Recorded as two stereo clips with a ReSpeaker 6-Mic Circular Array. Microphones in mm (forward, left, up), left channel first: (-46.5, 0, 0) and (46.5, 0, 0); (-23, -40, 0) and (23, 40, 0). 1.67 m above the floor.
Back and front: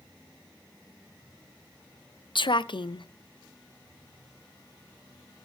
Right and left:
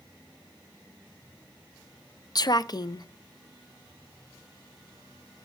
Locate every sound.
2.4 s a woman speaking: 160° right, 0.5 m